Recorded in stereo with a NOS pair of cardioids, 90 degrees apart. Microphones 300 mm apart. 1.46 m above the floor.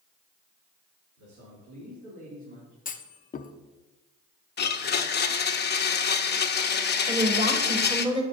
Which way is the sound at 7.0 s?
20° right.